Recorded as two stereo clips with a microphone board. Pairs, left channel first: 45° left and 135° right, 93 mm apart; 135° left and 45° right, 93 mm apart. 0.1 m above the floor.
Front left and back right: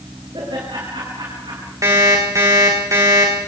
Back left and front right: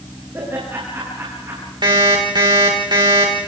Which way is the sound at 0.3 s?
105° right.